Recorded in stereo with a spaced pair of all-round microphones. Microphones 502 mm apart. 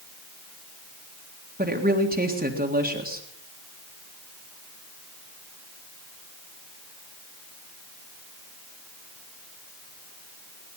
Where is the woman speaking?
15° right (ahead or behind), 1.9 m.